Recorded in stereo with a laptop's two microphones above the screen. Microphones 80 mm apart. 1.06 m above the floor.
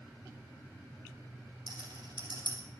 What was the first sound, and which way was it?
A rattle, 75° right (ahead or behind).